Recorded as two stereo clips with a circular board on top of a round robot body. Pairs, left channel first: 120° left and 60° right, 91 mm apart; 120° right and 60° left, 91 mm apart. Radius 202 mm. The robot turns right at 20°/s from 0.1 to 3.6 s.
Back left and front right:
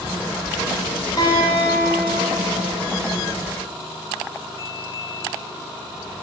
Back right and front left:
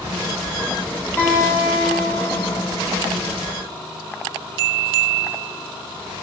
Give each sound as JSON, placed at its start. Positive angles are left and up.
{"t": 1.2, "sound": "a guitar", "azimuth_deg": 170, "distance_m": 3.0}